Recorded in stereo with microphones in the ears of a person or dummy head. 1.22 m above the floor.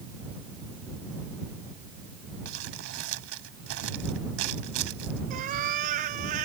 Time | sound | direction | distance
2.5 | crumpling | 85° right | ?
5.3 | a cat meowing | 45° right (ahead or behind) | ?